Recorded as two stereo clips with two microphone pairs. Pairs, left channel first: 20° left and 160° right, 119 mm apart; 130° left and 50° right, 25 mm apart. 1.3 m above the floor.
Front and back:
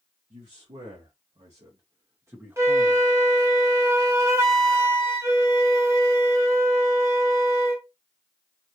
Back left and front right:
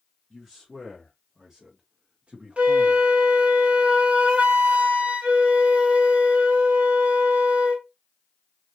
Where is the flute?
95° right, 0.9 m.